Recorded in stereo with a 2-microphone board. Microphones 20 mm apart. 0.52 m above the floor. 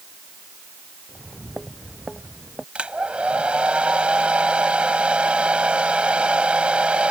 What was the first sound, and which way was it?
Footsteps, centre (ahead or behind).